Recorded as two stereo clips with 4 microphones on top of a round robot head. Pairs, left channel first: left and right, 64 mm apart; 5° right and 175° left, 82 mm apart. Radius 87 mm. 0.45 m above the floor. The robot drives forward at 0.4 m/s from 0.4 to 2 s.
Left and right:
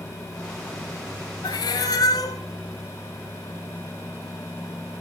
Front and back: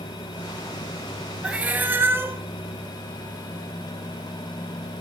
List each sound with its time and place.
1.4 s a cat meowing: 100° left, 0.9 m; by 2.4 s 110° left, 1.0 m